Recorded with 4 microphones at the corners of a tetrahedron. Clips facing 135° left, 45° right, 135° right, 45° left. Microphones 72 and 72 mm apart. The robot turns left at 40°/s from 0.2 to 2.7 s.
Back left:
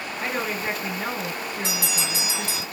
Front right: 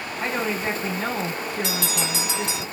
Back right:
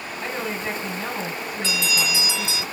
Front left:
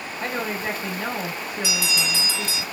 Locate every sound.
0.2 s a woman speaking: 30° left, 3.5 m; by 2.6 s 70° right, 3.5 m
1.6 s a bell: 35° right, 1.7 m; by 2.6 s 75° right, 1.7 m